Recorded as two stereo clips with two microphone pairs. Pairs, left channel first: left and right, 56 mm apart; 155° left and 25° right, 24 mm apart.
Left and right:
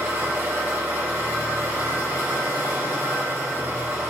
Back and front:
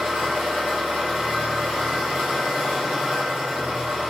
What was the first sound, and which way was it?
An engine running, 40° right.